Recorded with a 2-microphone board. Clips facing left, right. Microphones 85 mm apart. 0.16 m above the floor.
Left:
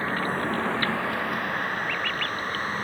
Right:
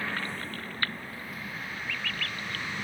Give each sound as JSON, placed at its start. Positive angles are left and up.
{"t": 0.0, "sound": "a vehicle", "side_deg": 35}